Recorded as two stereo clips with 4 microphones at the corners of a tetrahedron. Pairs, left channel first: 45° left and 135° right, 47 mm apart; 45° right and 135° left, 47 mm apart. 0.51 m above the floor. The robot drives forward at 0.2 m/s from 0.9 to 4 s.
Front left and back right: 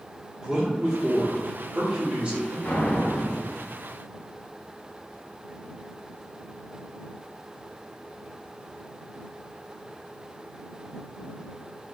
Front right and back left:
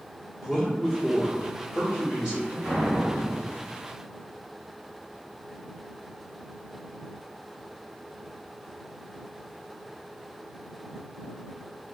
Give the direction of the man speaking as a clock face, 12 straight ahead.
5 o'clock.